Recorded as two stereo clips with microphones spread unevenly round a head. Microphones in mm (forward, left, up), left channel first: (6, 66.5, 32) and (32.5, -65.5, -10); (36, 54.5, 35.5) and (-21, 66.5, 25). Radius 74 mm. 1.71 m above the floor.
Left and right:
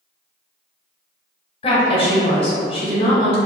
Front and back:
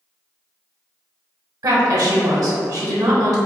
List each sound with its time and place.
1.6 s a woman speaking: 150° left, 1.0 m